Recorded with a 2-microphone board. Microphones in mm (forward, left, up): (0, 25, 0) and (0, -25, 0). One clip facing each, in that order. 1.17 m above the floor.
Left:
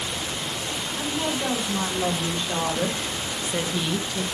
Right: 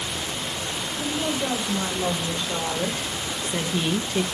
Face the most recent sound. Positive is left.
turn(degrees=-60)  # may be behind; listen again after turning